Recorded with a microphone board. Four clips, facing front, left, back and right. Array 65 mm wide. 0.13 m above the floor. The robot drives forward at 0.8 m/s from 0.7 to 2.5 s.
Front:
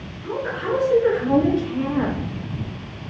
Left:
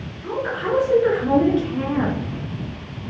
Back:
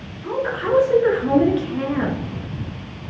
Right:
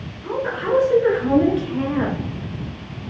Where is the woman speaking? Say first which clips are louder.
Right 1 dB, back 3 dB; 165° left, 1.5 m; by 2.2 s 175° left, 2 m.